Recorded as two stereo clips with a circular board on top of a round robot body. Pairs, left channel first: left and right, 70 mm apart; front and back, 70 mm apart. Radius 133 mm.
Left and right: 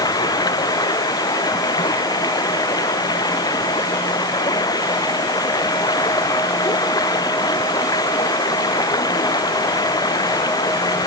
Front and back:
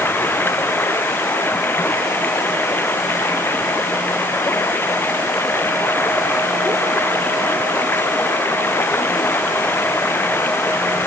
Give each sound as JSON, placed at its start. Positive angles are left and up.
{"t": 0.0, "sound": "running water", "azimuth_deg": 60}